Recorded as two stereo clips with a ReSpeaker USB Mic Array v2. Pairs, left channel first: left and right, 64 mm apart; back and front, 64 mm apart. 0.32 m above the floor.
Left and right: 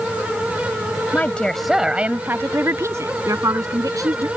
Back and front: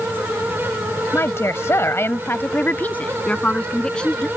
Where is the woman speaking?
145° left; by 4.3 s 105° right.